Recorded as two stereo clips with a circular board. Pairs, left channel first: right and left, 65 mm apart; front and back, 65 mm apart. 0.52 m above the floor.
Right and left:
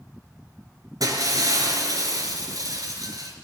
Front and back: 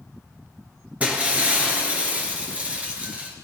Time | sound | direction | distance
1.0 | breaking glass | 110° left | 4 m